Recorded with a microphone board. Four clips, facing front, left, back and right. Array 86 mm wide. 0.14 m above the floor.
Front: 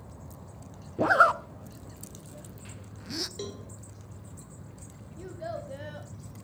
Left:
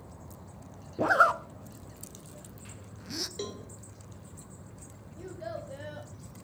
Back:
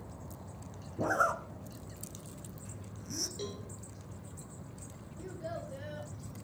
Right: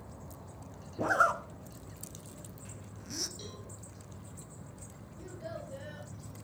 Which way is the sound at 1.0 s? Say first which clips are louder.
Left 4 dB, front 9 dB; 25° left.